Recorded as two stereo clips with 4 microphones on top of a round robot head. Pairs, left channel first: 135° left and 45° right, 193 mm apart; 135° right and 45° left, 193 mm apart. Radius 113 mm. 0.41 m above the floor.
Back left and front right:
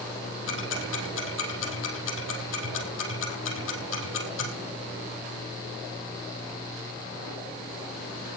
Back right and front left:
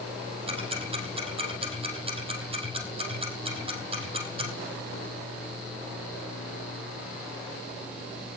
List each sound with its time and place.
0.5 s ticking: 110° left, 4.5 m